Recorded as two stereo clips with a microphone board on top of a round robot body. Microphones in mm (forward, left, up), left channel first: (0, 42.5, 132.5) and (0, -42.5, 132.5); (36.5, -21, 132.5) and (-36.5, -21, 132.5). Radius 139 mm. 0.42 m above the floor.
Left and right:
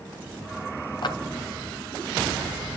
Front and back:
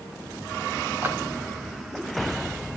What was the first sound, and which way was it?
A clap, 115° left.